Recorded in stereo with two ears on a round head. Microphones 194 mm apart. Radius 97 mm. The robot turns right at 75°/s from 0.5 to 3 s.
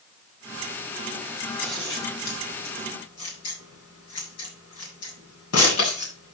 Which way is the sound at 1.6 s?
5° right (ahead or behind).